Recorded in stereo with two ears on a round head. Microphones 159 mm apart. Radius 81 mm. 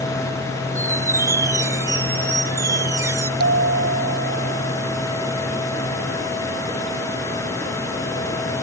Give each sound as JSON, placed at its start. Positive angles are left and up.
{"t": 0.8, "sound": "a squeak", "side_deg": -15}
{"t": 3.4, "sound": "a bell", "side_deg": -60}